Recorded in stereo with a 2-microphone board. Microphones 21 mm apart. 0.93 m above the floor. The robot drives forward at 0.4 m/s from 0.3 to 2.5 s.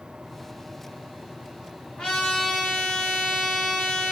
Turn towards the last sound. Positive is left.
turn(degrees=35)  # may be behind; listen again after turning